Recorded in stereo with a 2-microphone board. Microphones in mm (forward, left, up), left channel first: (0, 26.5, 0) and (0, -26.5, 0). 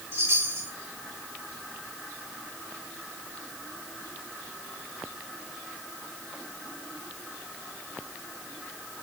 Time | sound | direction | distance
0.1 | a chime | 45° right (ahead or behind) | 7 m